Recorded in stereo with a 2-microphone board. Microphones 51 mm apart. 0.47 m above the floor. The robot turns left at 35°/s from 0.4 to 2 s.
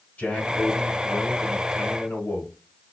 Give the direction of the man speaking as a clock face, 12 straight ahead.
7 o'clock.